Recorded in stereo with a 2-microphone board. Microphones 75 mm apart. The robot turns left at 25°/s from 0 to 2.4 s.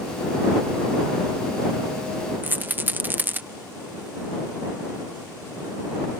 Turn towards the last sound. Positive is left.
turn(degrees=-25)  # may be behind; listen again after turning